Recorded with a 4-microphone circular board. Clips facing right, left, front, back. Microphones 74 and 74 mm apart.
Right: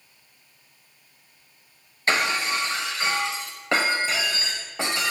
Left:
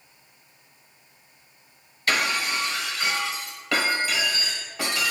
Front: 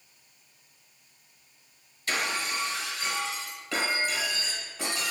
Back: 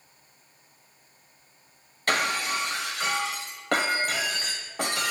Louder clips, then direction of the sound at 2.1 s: Right 1 dB, back 4 dB; 150° right.